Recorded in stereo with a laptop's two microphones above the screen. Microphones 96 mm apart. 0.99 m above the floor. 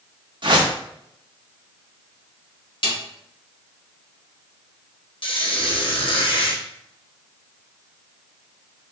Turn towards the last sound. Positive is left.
turn(degrees=65)  # may be behind; listen again after turning